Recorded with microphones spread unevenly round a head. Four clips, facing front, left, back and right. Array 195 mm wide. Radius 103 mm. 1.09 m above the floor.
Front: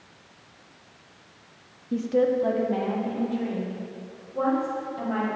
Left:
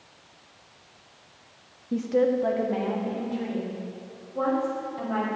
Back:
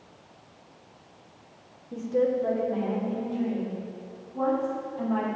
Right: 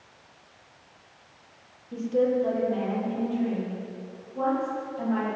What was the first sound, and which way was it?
A woman speaking, 45° left.